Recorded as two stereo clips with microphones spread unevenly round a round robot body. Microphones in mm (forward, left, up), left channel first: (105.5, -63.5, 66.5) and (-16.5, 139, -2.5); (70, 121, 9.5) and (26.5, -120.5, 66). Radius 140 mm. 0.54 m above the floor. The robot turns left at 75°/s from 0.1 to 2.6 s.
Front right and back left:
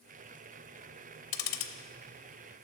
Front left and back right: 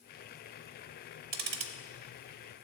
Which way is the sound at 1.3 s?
55° right.